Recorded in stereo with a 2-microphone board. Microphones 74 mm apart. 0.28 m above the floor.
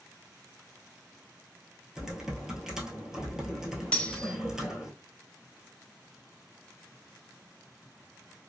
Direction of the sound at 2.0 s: 10° right (ahead or behind).